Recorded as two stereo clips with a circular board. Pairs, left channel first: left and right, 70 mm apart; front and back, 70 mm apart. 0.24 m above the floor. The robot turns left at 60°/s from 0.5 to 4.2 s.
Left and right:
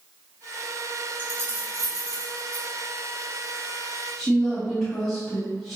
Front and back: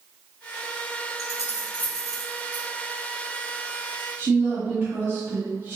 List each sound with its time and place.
1.2 s keys jangling: 25° right, 1.5 m; by 2.7 s 115° right, 1.5 m
4.2 s a woman speaking: 170° left, 1.3 m